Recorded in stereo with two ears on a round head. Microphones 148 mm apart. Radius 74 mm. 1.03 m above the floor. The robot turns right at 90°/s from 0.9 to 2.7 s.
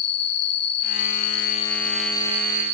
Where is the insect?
70° left, 2.5 m; by 2.8 s 125° right, 2.5 m.